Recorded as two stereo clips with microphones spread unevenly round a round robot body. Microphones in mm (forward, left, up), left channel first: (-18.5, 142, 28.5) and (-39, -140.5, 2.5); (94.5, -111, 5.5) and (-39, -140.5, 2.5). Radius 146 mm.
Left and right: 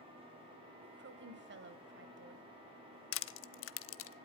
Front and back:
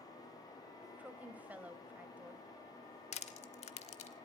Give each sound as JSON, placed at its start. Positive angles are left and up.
{"t": 0.8, "sound": "a woman speaking", "azimuth_deg": -95, "distance_m": 1.9}
{"t": 3.1, "sound": "crushing", "azimuth_deg": 45, "distance_m": 0.9}